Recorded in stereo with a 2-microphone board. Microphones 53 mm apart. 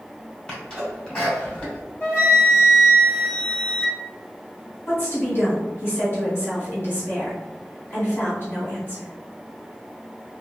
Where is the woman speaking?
40° left (ahead or behind), 1.7 m.